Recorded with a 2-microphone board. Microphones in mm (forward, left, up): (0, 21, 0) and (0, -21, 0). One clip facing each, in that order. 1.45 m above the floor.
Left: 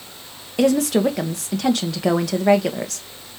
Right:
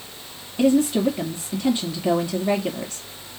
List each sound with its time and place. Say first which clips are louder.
0.6 s a woman speaking: left 1 dB; 80° left, 1.2 m